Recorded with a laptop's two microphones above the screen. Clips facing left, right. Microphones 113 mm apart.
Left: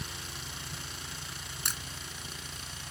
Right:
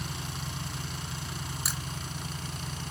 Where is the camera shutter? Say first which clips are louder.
Even; 5° right (ahead or behind).